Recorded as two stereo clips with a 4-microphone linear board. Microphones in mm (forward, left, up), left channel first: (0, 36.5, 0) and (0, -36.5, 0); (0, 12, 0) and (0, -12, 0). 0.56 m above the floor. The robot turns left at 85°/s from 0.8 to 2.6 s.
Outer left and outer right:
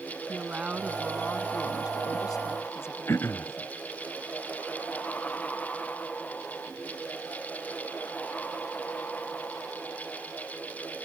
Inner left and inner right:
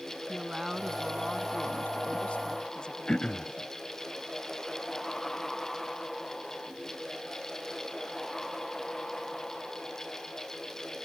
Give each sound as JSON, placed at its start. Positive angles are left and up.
{"t": 0.3, "sound": "a woman speaking", "azimuth_deg": -165}
{"t": 3.1, "sound": "throat clearing", "side_deg": 35}